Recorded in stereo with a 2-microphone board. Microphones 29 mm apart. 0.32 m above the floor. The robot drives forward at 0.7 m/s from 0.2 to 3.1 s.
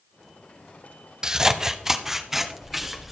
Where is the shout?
No shout in this recording.